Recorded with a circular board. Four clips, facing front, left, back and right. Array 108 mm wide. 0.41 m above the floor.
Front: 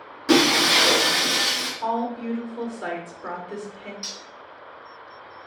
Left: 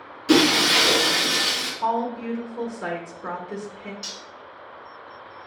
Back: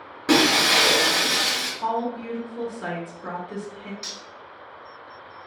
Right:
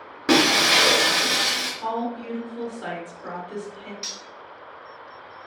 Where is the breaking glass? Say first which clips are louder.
Left 1 dB, front 1 dB; 110° right, 0.9 m.